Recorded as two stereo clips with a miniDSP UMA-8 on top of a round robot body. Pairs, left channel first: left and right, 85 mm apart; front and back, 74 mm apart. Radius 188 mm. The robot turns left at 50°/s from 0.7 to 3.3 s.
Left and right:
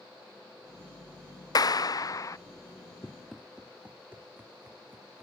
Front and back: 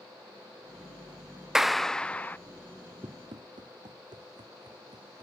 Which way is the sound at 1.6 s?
95° left.